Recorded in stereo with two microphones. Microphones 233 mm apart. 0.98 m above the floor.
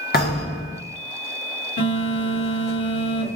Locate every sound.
0.1 s a thud: 45° left (ahead or behind), 1.5 m
1.8 s a phone buzzing: 85° left, 1.8 m